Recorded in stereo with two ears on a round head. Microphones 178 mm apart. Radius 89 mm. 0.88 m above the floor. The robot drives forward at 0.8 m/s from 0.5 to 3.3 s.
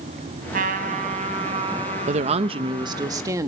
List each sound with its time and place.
0.5 s a trumpet: 50° right (ahead or behind), 2.5 m; by 3.1 s 25° right (ahead or behind), 4 m
2.1 s a woman speaking: 40° right (ahead or behind), 0.7 m; by 3.5 s 20° right (ahead or behind), 1.3 m